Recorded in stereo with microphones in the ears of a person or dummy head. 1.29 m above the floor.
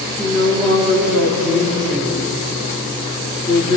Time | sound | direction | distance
0.2 | a woman speaking | 10° left (ahead or behind) | 4 m